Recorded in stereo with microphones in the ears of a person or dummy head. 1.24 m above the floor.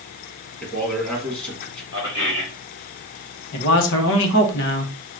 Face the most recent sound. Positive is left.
turn(degrees=65)  # may be behind; listen again after turning